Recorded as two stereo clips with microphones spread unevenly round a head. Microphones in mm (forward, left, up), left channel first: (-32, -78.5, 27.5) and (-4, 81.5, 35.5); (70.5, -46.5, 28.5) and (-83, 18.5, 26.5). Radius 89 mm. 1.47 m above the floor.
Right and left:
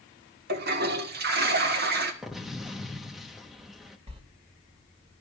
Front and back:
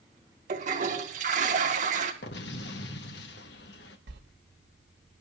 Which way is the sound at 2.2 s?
5° right.